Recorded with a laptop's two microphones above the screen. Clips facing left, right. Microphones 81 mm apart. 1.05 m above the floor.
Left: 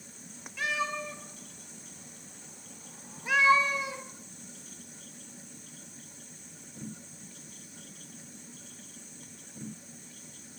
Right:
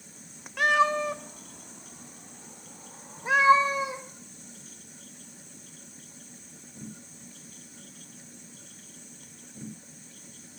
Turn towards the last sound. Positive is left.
turn(degrees=-30)  # may be behind; listen again after turning